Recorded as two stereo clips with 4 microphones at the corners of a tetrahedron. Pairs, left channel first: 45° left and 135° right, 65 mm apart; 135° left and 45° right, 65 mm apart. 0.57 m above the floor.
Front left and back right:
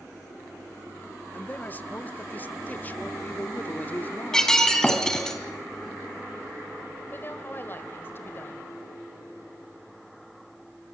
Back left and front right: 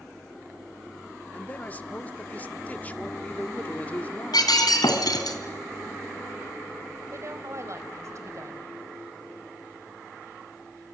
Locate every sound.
1.3 s a man speaking: 85° left, 1.0 m
4.3 s breaking glass: 125° left, 3 m
7.1 s a woman speaking: 10° right, 3 m